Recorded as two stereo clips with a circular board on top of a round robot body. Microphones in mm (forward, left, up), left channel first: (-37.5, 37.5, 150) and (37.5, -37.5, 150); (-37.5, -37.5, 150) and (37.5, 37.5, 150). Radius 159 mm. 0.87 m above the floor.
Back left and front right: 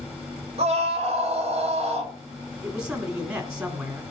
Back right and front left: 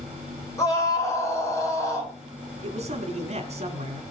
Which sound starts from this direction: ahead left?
A man speaking, at 2.6 s.